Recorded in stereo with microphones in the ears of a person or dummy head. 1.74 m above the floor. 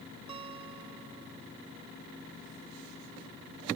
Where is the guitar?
30° right (ahead or behind).